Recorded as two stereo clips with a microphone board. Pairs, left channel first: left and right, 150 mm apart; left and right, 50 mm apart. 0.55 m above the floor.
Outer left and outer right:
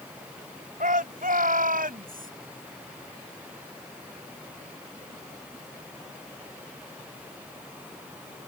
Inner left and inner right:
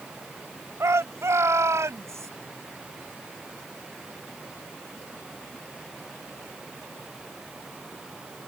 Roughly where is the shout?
Right.